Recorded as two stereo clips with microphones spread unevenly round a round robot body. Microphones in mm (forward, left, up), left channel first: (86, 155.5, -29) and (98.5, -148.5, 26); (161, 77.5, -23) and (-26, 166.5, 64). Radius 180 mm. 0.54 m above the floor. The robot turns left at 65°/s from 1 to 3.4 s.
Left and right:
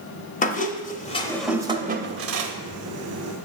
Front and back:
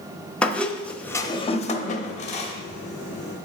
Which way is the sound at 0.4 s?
40° left.